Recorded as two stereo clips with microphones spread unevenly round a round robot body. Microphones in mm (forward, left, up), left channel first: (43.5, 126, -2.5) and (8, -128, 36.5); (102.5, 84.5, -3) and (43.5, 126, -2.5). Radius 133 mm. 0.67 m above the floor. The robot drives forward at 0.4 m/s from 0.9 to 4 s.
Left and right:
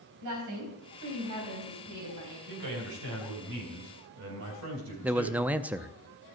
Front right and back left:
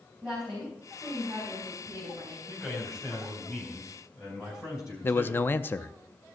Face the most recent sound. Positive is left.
turn(degrees=-5)